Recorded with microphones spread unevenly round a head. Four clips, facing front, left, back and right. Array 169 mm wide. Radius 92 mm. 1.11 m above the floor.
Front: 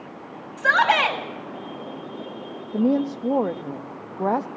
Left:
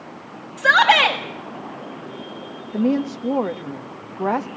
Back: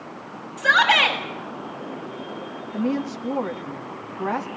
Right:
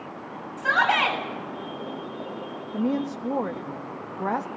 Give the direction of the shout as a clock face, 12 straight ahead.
10 o'clock.